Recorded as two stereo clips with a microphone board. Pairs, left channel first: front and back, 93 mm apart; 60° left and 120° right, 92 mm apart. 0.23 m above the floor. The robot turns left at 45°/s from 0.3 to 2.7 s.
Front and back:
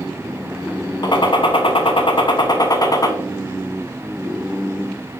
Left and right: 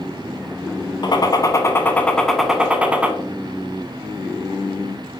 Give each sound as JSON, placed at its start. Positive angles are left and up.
{"t": 1.0, "sound": "a gunshot", "azimuth_deg": 30, "distance_m": 0.5}